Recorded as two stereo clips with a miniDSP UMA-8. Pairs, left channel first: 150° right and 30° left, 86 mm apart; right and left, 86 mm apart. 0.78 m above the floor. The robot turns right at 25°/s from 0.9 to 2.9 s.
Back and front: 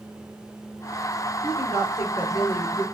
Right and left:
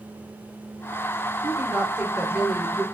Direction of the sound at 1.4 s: 155° left.